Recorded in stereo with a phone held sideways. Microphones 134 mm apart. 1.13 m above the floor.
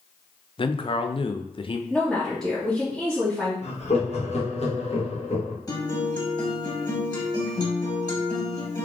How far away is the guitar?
About 1.6 m.